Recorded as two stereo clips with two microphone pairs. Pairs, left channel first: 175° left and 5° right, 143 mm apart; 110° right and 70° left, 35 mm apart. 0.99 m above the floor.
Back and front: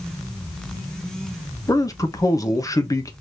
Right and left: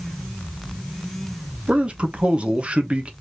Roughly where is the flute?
No flute in this recording.